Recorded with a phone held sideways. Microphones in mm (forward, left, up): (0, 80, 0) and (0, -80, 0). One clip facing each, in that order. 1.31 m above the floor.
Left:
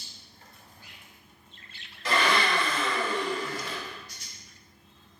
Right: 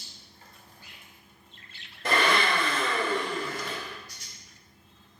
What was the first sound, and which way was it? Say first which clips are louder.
A blender: right 1 dB; 55° right (ahead or behind).